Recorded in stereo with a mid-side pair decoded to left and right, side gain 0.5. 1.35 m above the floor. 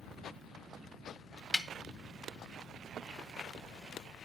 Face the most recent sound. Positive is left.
turn(degrees=15)